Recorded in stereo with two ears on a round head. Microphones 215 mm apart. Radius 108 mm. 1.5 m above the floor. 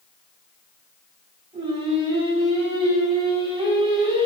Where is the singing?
25° right (ahead or behind), 3.5 m.